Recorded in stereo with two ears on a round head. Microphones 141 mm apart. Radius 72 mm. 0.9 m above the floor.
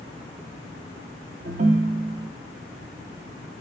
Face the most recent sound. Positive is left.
turn(degrees=-50)  # may be behind; listen again after turning